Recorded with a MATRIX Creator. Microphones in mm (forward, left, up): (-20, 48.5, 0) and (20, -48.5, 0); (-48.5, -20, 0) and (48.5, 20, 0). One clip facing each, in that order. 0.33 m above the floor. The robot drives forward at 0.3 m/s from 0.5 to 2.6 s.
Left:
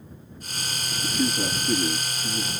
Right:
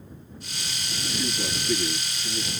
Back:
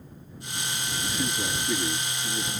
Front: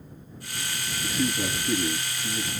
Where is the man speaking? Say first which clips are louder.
Left 5 dB, front 4 dB; 75° left, 7.5 m; by 2.5 s 80° left, 7.5 m.